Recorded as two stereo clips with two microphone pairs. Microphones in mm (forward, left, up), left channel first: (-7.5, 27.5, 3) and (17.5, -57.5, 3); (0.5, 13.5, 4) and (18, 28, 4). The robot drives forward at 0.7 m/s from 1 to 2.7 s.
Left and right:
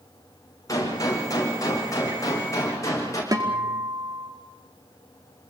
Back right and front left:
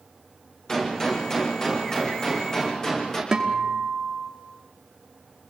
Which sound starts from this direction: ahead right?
A guitar, at 3.3 s.